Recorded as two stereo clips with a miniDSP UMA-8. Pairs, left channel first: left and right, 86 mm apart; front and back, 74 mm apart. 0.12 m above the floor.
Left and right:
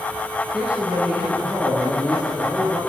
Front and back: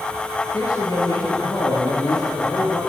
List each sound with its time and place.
0.5 s a man speaking: 5° right, 2.5 m